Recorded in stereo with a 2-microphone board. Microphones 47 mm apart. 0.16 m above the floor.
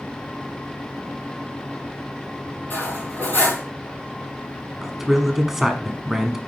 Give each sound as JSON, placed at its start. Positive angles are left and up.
{"t": 2.7, "sound": "cutlery clinking", "side_deg": 40, "distance_m": 3.5}
{"t": 4.8, "sound": "a man speaking", "side_deg": -10, "distance_m": 1.0}